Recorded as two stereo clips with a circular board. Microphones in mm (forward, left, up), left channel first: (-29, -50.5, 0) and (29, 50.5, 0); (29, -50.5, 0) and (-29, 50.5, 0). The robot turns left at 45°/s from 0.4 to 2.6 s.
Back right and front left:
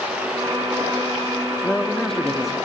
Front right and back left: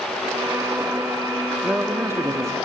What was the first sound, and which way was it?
A man speaking, straight behind.